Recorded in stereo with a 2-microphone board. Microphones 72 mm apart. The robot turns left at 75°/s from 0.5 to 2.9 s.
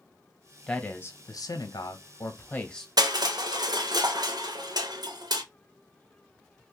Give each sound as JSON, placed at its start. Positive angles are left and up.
{"t": 0.7, "sound": "a man speaking", "azimuth_deg": 170, "distance_m": 0.7}
{"t": 3.0, "sound": "crushing", "side_deg": -65, "distance_m": 0.6}